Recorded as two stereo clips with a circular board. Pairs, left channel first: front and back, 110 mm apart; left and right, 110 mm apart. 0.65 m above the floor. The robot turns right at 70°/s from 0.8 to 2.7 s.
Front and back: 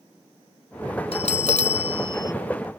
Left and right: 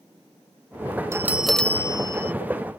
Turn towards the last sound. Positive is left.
turn(degrees=85)